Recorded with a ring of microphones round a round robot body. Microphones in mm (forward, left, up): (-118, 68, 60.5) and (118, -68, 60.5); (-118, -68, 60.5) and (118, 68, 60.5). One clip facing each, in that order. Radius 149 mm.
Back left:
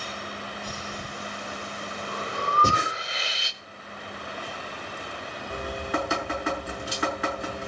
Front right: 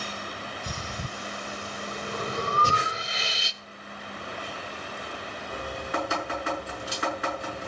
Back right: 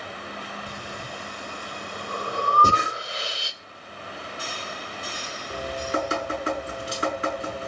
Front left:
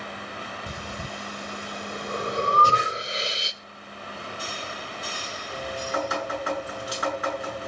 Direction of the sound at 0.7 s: 40° right.